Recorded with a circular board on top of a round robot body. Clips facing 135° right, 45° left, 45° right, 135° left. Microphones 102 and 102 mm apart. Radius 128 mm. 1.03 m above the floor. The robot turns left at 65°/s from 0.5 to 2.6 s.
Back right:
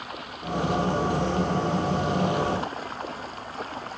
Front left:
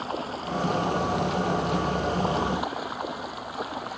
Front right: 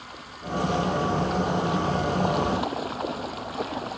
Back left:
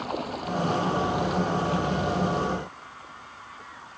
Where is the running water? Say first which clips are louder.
Front left 5 dB, back left 9 dB; 105° left; by 4.0 s 35° right.